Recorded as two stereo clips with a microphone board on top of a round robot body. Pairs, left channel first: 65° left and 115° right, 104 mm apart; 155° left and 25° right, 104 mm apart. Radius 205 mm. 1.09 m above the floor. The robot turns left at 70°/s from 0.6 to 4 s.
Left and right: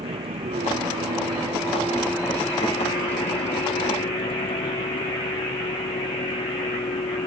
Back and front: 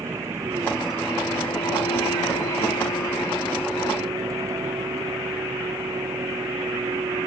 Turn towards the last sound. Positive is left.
turn(degrees=35)